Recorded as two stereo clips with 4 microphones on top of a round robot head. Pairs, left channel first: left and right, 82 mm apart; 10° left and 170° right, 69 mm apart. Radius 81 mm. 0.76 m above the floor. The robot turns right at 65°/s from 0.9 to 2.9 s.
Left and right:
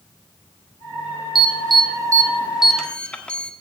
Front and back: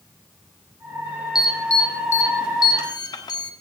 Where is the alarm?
90° right, 1.2 m; by 3.5 s 10° left, 1.2 m.